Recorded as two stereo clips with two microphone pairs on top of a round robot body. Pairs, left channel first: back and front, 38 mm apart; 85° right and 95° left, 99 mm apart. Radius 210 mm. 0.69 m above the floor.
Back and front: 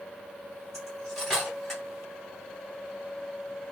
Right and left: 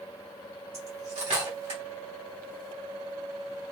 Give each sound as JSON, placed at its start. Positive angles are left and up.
{"t": 0.7, "sound": "cutlery clinking", "azimuth_deg": 95, "distance_m": 3.0}